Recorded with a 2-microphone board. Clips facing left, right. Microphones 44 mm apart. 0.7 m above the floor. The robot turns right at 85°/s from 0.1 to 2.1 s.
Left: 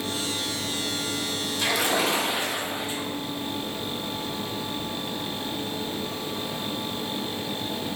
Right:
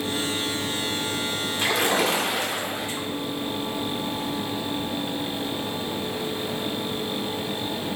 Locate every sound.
1.6 s a splash: 155° right, 0.7 m; by 3.1 s 110° right, 0.7 m